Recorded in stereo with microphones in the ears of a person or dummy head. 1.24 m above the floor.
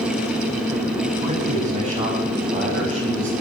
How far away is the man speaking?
About 9.5 m.